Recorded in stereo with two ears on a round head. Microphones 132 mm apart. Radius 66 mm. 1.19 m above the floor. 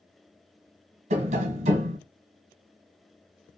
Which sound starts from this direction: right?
Tapping, at 1.1 s.